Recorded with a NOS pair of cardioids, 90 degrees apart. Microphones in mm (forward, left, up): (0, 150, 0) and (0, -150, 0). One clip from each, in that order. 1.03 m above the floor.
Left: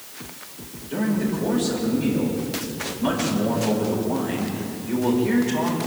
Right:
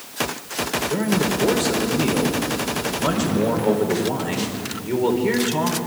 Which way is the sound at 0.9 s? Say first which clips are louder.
Left 1 dB; 65° right.